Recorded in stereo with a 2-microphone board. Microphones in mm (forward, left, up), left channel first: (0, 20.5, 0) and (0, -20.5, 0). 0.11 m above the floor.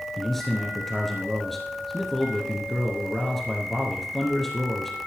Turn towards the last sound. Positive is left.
turn(degrees=5)  # may be behind; listen again after turning